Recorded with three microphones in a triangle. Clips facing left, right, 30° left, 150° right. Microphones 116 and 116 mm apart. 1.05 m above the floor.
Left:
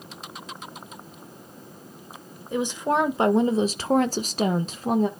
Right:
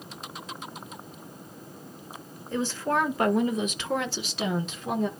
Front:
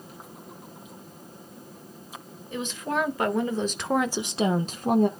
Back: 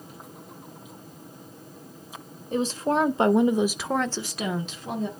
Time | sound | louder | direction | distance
2.5 | a woman speaking | left 3 dB, back 5 dB | 165° left | 1.8 m